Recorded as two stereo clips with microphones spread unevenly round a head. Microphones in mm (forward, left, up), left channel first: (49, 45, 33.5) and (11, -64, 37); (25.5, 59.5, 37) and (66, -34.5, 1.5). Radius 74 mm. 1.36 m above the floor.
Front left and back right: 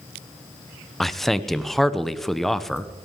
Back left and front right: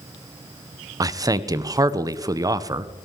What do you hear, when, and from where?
1.0 s a man speaking: 15° right, 0.8 m